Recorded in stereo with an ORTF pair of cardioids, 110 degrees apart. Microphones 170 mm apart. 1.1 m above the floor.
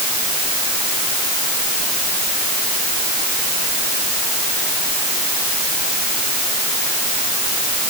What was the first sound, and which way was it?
Only background noise.